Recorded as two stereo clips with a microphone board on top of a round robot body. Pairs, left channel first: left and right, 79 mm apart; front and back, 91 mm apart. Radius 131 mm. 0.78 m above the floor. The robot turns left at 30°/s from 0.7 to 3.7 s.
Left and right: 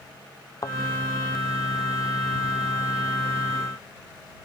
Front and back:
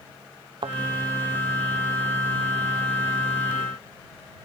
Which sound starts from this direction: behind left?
A thud, at 0.6 s.